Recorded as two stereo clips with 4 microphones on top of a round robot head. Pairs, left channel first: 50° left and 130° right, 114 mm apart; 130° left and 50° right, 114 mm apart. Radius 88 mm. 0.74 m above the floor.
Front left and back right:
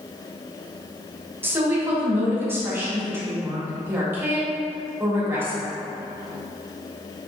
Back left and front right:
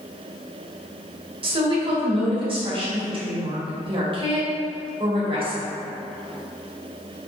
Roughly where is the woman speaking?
Ahead right.